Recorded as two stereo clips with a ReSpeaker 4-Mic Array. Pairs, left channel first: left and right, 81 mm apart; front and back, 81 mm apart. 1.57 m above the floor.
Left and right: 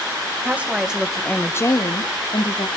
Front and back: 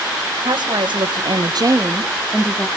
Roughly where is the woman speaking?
Behind.